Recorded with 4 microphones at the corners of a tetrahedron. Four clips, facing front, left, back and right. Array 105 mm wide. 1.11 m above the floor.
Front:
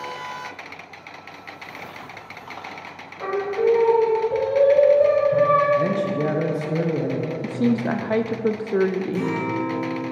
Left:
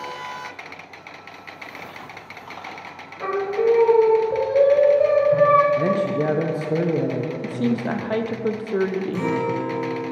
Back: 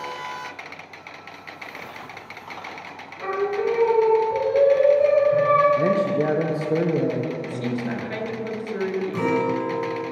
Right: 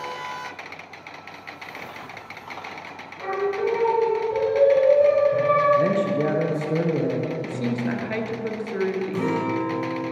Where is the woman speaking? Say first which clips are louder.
Left 3 dB, front 6 dB; 30° left, 0.5 m.